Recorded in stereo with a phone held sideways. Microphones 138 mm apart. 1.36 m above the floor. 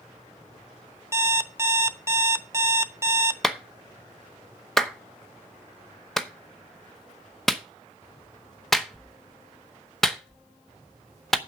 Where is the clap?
Centre (ahead or behind), 0.9 m.